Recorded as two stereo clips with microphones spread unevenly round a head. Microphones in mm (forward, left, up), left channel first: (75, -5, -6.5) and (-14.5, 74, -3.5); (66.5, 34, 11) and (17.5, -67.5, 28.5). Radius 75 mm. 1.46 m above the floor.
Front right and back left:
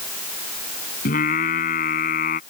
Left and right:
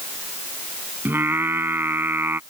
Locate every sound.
1.1 s singing: 45° right